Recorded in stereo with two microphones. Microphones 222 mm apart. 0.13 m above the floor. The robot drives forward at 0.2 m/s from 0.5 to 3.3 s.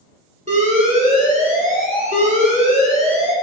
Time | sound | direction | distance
0.5 | an alarm | 30° right (ahead or behind) | 1.1 m